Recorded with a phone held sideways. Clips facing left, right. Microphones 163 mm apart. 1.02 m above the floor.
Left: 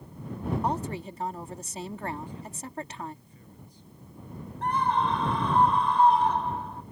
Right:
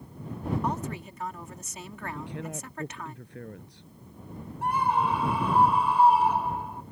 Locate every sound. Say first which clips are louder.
0.6 s a woman speaking: left 2 dB; 30° left (ahead or behind)
2.1 s a woman speaking: right 3 dB; 75° right (ahead or behind)
4.6 s a scream: even; 10° right (ahead or behind)